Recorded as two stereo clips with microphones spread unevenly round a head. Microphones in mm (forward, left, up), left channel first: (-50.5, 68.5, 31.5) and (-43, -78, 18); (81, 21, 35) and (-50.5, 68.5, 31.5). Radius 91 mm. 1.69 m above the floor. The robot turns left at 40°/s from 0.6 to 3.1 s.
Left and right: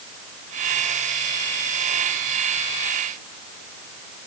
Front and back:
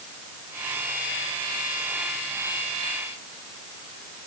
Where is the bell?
No bell in this recording.